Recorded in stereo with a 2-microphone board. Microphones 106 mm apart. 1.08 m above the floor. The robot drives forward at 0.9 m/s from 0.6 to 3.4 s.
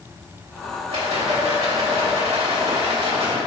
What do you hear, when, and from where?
0.9 s a rattle: 75° right (ahead or behind), 3 m; by 3.4 s 65° right (ahead or behind), 3.5 m